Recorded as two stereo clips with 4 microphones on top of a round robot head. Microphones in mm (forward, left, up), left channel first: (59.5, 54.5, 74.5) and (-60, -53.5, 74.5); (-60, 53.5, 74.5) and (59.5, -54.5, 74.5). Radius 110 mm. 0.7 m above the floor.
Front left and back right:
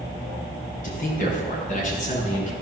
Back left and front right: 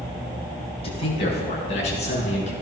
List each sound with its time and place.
0.8 s a man speaking: 80° left, 5.5 m; by 2.5 s 90° left, 8 m